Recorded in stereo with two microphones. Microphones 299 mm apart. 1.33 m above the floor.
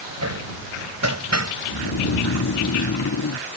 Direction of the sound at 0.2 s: 60° right (ahead or behind).